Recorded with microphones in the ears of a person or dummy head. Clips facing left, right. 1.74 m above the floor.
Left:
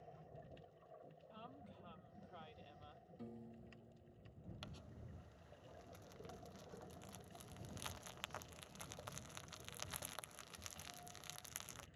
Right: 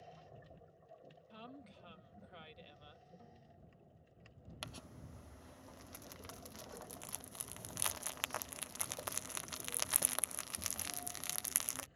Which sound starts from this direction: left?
A piano, at 3.2 s.